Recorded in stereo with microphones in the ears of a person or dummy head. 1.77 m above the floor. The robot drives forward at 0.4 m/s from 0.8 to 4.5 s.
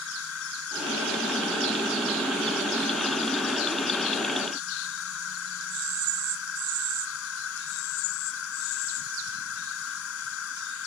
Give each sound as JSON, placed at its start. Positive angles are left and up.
{"t": 0.0, "sound": "an insect", "side_deg": 85}